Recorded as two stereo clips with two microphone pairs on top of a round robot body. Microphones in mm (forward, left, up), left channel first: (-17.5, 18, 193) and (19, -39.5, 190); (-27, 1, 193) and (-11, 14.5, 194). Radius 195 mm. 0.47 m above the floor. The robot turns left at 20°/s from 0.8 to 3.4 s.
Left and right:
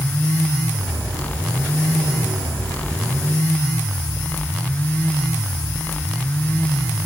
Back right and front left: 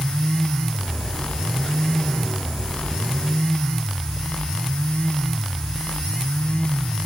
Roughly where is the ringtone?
I don't hear a ringtone.